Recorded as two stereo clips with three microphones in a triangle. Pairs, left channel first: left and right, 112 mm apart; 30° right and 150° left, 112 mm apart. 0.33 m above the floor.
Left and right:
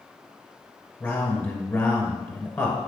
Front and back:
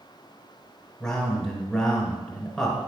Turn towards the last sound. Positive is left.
turn(degrees=45)